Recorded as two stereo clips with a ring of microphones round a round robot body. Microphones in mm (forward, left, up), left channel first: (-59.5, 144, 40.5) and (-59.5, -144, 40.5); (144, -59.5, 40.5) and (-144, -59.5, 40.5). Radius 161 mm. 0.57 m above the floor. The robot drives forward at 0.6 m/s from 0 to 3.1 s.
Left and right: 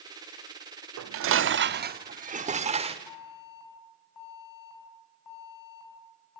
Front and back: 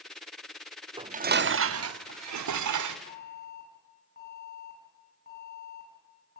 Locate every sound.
1.0 s dishes clattering: 110° right, 0.7 m; by 3.0 s 160° right, 1.5 m
3.1 s an alarm: 65° left, 7 m